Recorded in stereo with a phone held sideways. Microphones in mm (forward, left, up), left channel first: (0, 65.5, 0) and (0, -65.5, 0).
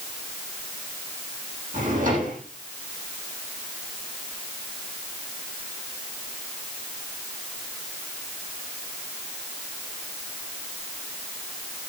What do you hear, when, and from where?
1.7 s a drawer: 85° right, 9.5 m